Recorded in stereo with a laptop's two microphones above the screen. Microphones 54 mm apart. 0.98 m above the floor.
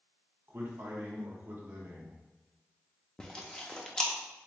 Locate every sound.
0.5 s a man speaking: 40° right (ahead or behind), 0.9 m
3.2 s chewing: 15° left (ahead or behind), 0.6 m